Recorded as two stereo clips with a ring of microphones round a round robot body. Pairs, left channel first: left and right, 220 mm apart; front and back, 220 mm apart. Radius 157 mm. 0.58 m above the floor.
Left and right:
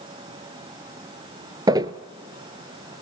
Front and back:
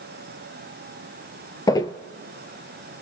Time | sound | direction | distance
1.7 | footsteps | 50° right | 0.5 m